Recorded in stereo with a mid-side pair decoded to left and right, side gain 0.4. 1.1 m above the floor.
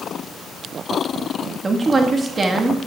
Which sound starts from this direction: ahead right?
A woman speaking, at 1.6 s.